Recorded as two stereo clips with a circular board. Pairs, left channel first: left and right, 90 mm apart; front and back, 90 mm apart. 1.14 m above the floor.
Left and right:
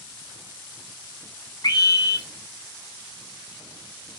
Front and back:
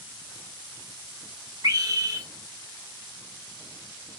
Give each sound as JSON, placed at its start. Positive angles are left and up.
{"t": 1.6, "sound": "a scream", "azimuth_deg": 135, "distance_m": 1.1}